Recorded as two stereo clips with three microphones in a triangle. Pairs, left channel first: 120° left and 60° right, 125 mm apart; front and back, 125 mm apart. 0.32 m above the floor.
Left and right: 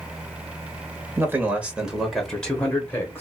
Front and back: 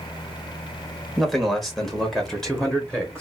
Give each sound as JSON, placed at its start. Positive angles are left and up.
{"t": 1.2, "sound": "a man speaking", "azimuth_deg": -90, "distance_m": 1.4}